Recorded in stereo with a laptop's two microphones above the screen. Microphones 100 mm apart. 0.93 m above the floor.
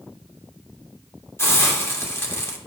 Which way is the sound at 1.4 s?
25° left (ahead or behind).